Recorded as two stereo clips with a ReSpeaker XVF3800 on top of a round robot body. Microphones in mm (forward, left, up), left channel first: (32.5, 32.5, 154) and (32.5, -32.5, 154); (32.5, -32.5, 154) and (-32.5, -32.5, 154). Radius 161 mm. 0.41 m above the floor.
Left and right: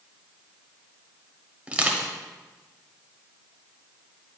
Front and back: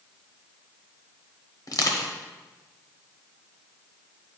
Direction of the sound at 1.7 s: 20° right.